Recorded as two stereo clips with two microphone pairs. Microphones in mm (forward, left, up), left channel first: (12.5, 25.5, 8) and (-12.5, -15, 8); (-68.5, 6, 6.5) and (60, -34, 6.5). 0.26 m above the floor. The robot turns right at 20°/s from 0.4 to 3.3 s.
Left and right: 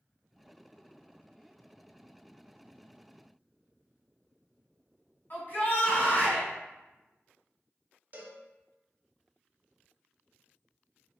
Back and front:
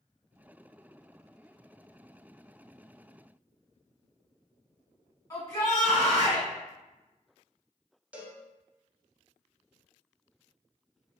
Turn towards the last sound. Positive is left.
turn(degrees=-95)